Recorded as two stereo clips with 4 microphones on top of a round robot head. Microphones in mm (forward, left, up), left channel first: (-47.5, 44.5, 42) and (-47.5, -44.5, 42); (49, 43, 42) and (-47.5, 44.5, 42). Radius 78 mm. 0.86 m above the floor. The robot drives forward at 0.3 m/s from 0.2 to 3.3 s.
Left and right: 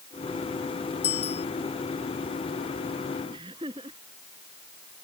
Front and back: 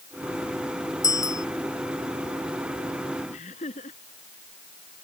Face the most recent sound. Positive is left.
turn(degrees=-35)